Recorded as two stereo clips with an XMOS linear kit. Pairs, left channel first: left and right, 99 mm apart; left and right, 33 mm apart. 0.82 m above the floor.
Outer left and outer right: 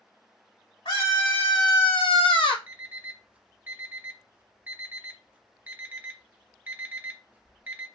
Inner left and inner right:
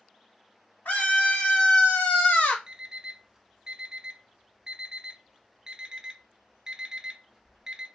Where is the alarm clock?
15° right (ahead or behind), 0.5 m.